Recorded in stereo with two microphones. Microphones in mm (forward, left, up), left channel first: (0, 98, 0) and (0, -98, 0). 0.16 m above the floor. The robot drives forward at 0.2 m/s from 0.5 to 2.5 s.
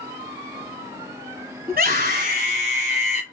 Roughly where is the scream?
Right.